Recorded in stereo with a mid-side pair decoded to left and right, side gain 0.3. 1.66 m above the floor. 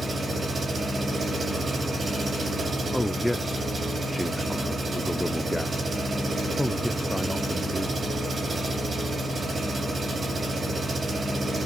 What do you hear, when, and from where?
0.0 s an engine running: 60° right, 4 m
2.9 s a man speaking: straight ahead, 0.6 m